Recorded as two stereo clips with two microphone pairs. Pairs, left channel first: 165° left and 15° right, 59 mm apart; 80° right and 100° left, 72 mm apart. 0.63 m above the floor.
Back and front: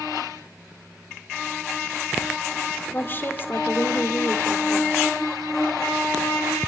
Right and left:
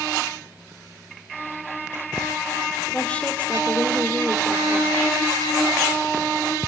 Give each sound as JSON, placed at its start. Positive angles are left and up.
{"t": 2.9, "sound": "a woman speaking", "azimuth_deg": -150, "distance_m": 2.0}